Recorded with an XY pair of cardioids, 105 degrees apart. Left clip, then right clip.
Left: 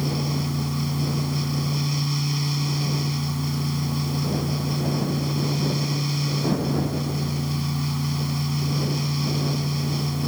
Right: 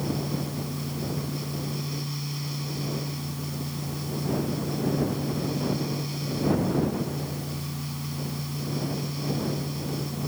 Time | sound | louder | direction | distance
0.0 | a fan | left 3 dB | 50° left | ?